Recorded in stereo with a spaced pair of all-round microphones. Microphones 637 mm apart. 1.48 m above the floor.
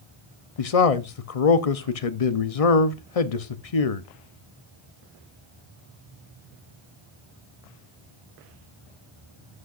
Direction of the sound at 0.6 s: 65° left (ahead or behind).